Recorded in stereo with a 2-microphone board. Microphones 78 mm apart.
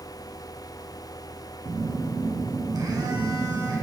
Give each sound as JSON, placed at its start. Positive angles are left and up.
{"t": 1.6, "sound": "a phone buzzing", "side_deg": -55, "distance_m": 1.3}